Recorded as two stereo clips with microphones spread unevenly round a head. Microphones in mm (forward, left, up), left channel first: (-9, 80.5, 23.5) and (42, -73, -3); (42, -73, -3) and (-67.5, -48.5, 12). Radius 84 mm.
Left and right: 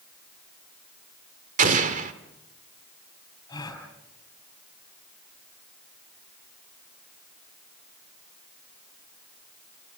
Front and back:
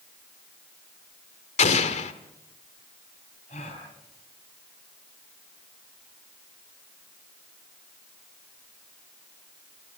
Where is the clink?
No clink in this recording.